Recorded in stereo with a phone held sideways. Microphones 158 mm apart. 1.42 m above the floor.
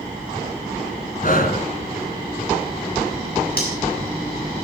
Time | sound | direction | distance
1.2 | breathing | 60° left (ahead or behind) | 2.5 m
3.6 | cutlery clinking | 70° left (ahead or behind) | 7.5 m